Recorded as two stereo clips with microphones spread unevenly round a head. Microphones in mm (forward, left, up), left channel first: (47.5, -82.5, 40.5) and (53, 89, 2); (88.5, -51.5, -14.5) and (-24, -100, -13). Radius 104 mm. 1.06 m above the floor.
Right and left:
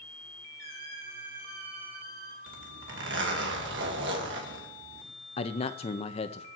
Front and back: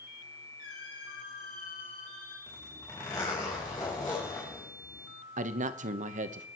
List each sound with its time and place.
0.6 s a squeak: 55° left, 4 m
2.5 s a zipper: 100° left, 2.5 m
5.4 s a man speaking: 160° right, 0.9 m